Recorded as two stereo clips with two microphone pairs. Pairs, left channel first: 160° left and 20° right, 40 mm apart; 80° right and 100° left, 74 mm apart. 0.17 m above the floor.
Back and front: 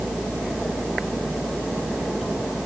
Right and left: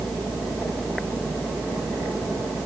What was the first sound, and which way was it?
Only background noise.